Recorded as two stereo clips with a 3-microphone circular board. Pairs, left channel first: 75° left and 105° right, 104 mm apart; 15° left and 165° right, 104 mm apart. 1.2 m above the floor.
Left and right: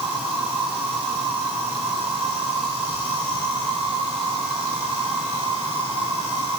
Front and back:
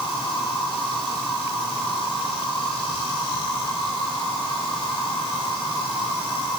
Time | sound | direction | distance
0.0 | an insect | 75° right | 10 m